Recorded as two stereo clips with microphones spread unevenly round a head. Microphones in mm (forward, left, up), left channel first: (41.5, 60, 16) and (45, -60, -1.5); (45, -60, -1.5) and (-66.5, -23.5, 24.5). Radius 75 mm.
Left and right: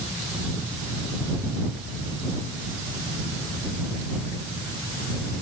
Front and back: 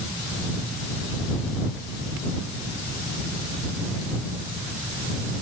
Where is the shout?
I don't hear a shout.